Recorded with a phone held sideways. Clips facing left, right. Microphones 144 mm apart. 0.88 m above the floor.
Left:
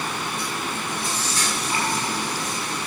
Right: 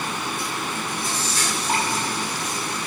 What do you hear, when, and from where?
1.7 s dripping: 75° right (ahead or behind), 6 m